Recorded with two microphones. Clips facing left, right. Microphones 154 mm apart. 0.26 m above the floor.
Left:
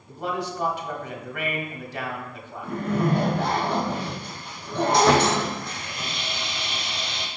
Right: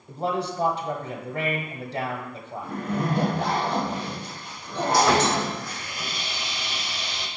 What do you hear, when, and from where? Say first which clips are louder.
0.1 s a man speaking: right 2 dB; 30° right (ahead or behind), 1.4 m
2.6 s a zipper: left 3 dB; 60° left (ahead or behind), 3 m
4.9 s sawing: left 1 dB; 25° left (ahead or behind), 1.5 m